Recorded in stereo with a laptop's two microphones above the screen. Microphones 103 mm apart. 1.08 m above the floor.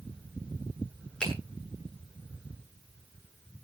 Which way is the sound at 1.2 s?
10° left (ahead or behind).